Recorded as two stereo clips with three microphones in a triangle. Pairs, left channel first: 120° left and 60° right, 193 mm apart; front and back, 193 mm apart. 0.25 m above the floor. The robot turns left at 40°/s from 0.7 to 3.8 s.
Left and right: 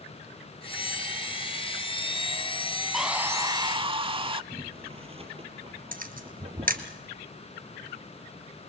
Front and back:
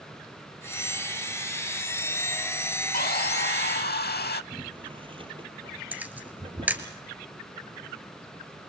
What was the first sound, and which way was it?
Sawing, 30° left.